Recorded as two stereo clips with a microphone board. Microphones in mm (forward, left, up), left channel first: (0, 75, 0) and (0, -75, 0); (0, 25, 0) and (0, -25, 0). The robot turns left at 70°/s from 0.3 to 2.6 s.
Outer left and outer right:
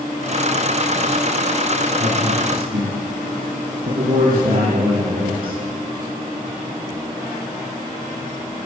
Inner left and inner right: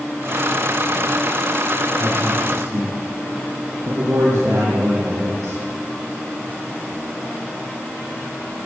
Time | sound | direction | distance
2.0 | a man speaking | 35° right (ahead or behind) | 6.5 m